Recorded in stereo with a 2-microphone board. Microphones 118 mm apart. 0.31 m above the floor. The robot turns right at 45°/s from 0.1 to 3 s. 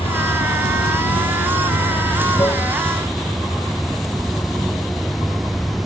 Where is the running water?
50° left; by 5.9 s straight behind.